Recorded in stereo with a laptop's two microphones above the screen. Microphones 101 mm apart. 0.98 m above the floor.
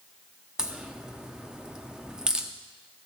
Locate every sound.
0.6 s a crack: 5° right (ahead or behind), 0.8 m